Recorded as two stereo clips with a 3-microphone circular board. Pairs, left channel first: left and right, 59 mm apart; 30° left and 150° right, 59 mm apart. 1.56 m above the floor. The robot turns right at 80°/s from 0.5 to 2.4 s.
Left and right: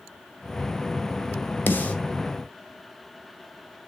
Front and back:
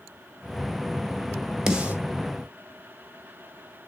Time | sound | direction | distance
1.7 | a snare drum | 135° left | 1.9 m